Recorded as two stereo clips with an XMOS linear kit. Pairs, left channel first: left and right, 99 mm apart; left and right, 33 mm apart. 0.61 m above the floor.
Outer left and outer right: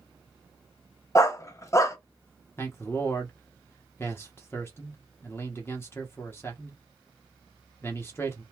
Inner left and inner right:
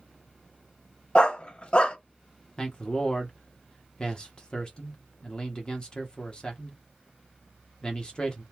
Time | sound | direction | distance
1.1 | a dog barking | 30° left (ahead or behind) | 0.9 m
2.6 | a man speaking | 25° left (ahead or behind) | 1.0 m